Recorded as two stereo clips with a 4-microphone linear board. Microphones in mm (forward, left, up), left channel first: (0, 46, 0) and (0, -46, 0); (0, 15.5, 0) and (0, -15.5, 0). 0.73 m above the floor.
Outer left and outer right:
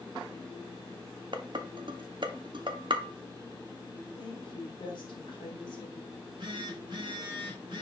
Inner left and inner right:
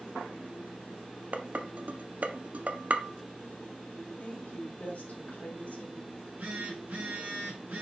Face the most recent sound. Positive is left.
turn(degrees=-60)  # may be behind; listen again after turning